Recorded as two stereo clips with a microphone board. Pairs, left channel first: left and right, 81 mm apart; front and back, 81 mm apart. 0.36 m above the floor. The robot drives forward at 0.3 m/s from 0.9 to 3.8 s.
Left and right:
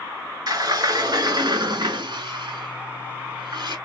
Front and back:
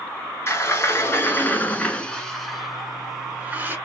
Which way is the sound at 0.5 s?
55° right.